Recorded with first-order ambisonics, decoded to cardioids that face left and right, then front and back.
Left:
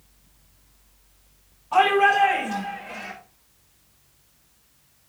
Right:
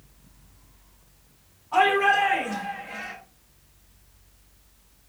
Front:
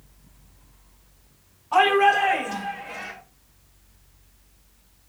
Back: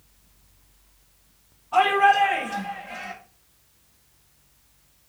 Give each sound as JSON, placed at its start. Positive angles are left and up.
{"t": 1.7, "sound": "a shout", "azimuth_deg": 30, "distance_m": 6.5}